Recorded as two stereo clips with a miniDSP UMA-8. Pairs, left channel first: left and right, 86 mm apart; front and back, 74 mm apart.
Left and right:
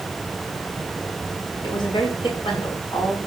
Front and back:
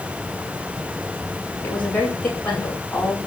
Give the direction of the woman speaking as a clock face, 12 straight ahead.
10 o'clock.